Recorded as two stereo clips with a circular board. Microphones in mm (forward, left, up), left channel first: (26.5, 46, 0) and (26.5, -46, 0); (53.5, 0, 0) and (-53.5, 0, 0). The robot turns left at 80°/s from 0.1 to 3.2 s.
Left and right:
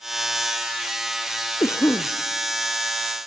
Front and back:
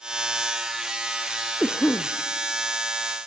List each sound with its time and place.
1.6 s a cough: 80° left, 0.6 m; by 2.1 s 40° left, 0.6 m